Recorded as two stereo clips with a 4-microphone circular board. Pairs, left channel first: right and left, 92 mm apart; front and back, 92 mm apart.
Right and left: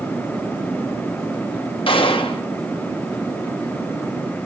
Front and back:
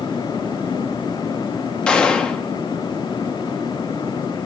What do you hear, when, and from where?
1.9 s a gunshot: 80° right, 0.9 m